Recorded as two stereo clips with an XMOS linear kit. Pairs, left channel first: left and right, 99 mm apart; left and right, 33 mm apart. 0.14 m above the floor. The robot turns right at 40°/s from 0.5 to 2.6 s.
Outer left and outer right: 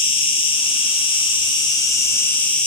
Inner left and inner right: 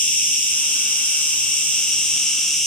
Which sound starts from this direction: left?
An insect, at 0.0 s.